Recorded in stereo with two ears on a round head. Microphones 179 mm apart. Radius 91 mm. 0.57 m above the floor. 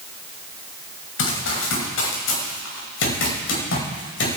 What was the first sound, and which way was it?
Running footsteps, 80° left.